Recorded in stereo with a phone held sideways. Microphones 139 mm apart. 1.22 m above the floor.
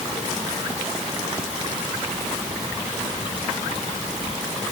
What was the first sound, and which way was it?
Only background noise.